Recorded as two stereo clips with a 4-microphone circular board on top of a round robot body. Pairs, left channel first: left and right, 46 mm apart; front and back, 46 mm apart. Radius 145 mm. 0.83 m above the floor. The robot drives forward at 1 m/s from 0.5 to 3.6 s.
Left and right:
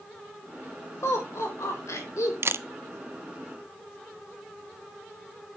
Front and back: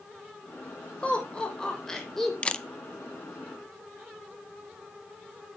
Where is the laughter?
65° left, 4 m; by 2.3 s 85° left, 3.5 m.